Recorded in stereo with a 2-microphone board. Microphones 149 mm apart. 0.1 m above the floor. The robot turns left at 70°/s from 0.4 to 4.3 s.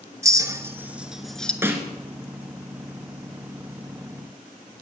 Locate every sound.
0.2 s a clink: 20° right (ahead or behind), 0.8 m; by 1.5 s 5° left (ahead or behind), 0.8 m
1.6 s a snare drum: 15° right (ahead or behind), 1.4 m